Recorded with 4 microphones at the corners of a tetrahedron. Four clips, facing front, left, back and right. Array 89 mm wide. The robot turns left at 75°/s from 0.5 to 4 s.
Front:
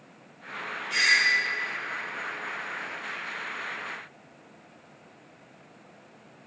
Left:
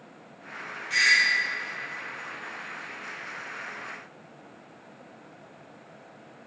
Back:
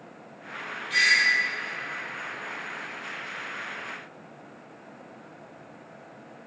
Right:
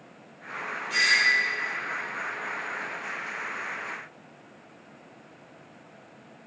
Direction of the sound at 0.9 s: 110° left.